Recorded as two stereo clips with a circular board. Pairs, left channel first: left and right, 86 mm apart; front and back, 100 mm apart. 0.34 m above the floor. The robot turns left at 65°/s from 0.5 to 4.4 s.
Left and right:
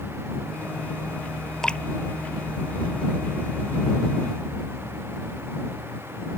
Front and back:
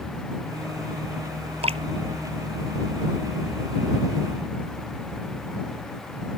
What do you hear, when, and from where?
1.6 s dripping: 175° left; by 1.8 s 160° left